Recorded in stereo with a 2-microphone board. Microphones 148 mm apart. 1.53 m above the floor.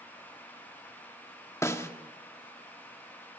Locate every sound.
1.6 s a snare drum: 20° left (ahead or behind), 1.8 m